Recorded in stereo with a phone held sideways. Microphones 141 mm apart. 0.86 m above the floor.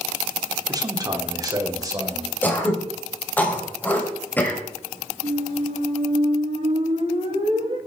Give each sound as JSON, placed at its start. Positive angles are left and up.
{"t": 0.7, "sound": "a man speaking", "side_deg": -25, "distance_m": 1.5}
{"t": 2.4, "sound": "throat clearing", "side_deg": 10, "distance_m": 3.0}
{"t": 5.2, "sound": "a squeak", "side_deg": -45, "distance_m": 5.0}